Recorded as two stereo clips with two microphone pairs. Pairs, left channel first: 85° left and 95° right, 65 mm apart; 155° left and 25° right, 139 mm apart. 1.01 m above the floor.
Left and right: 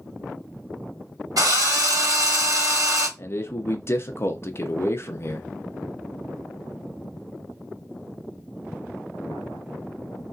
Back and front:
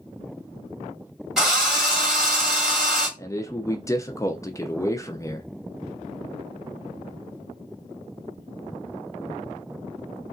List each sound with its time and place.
1.4 s a drill: 110° right, 1.7 m
3.2 s a man speaking: 95° left, 0.6 m